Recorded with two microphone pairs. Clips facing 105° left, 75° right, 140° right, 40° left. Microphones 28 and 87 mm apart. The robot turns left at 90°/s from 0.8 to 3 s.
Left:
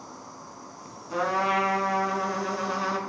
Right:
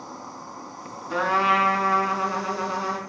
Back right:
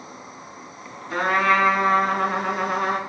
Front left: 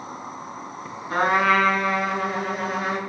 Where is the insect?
10° right, 1.0 m; by 3.1 s 150° left, 1.0 m.